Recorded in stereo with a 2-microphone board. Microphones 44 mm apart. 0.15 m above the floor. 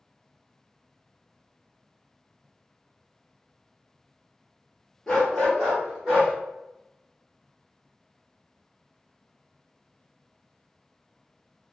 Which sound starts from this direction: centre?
A dog barking, at 5.1 s.